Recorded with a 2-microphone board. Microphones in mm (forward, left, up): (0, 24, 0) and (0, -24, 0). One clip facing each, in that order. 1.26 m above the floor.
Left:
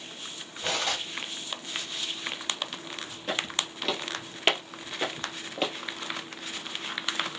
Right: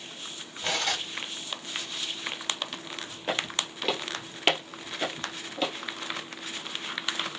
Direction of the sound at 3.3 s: 25° right (ahead or behind).